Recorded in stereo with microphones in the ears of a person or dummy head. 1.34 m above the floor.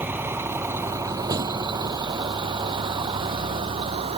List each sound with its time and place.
0.0 s a vehicle: 15° right (ahead or behind); by 4.2 s 40° right (ahead or behind)